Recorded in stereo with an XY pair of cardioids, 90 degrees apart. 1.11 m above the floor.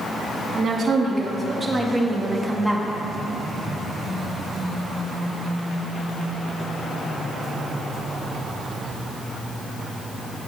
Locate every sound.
0.6 s a woman speaking: 50° right, 1.7 m; by 2.9 s 10° left, 1.5 m